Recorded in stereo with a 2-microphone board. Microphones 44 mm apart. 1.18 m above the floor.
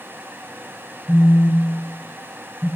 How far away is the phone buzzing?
About 1.3 m.